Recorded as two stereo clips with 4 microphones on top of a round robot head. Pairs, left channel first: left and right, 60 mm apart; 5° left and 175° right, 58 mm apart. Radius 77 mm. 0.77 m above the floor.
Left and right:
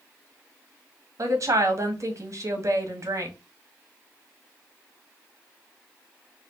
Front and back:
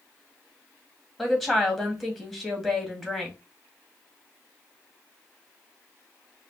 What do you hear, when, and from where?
1.2 s a woman speaking: 85° right, 1.4 m